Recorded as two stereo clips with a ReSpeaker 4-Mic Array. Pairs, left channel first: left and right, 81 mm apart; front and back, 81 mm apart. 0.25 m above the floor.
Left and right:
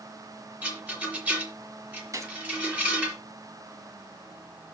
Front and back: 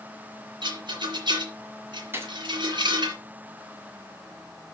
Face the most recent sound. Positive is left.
turn(degrees=-125)